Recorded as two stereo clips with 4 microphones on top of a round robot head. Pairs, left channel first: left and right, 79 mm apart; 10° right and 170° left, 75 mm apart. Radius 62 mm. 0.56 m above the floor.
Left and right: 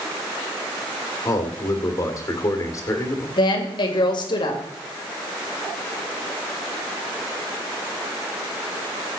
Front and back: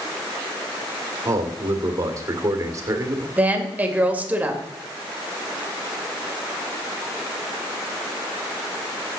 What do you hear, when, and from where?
1.2 s a man speaking: 130° left, 2.5 m
3.4 s a woman speaking: 100° left, 2.5 m